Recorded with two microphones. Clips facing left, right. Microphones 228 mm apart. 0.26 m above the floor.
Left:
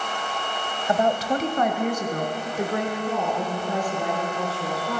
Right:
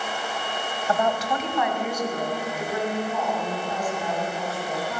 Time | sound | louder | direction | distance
0.9 | a woman speaking | left 3 dB | 20° left (ahead or behind) | 0.9 m